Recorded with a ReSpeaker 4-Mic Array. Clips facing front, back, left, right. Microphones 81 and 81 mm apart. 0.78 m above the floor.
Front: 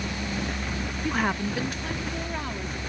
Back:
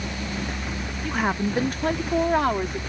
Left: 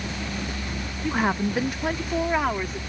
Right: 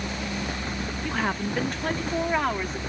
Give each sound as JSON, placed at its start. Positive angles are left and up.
{"t": 1.0, "sound": "a woman speaking", "azimuth_deg": 50}